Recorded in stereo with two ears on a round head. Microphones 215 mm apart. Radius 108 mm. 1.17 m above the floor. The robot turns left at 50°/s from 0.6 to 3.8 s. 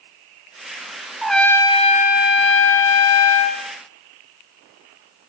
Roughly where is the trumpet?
Behind.